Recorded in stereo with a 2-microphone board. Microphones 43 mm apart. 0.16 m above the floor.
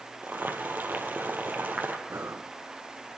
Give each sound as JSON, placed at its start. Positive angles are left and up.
{"t": 0.2, "sound": "boiling", "side_deg": -50, "distance_m": 3.5}
{"t": 2.1, "sound": "breathing", "side_deg": -85, "distance_m": 3.0}